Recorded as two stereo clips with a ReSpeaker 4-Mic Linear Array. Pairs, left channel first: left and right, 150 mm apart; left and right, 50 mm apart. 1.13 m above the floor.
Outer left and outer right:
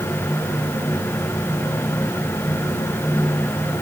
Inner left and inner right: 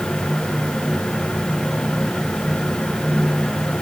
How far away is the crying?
I don't hear crying.